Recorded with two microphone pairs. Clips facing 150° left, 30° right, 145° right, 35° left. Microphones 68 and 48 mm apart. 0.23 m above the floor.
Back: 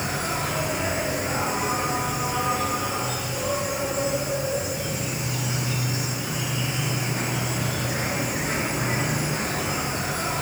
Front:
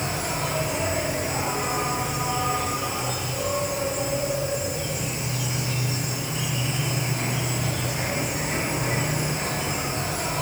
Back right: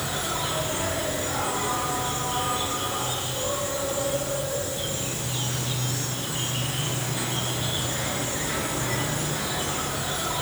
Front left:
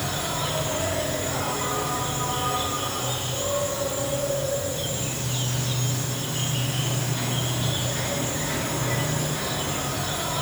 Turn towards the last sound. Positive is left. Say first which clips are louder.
# back 1 dB, front left 1 dB
turn(degrees=130)